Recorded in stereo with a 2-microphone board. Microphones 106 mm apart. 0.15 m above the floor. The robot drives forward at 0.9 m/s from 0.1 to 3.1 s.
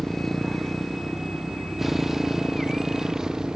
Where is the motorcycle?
5° left (ahead or behind); by 3.6 s 5° right (ahead or behind).